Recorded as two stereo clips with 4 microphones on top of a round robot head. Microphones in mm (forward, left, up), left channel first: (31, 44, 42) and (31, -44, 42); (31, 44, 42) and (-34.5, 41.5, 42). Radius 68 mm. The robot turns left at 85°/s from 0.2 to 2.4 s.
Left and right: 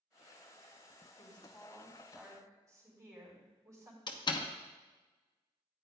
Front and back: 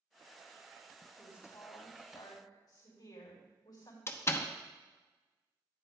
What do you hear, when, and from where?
1.2 s a woman speaking: 65° left, 4 m; by 4.0 s 40° right, 4 m
4.1 s a door slam: 50° left, 1.0 m